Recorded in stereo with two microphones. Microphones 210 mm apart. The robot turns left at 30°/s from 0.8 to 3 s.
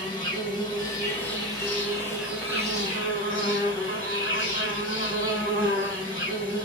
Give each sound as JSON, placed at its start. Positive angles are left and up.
{"t": 0.0, "sound": "an insect", "azimuth_deg": 25, "distance_m": 3.0}